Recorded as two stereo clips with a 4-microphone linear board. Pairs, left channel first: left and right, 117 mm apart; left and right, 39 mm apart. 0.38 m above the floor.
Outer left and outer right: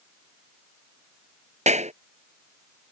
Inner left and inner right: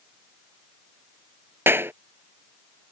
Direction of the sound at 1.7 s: 75° right (ahead or behind).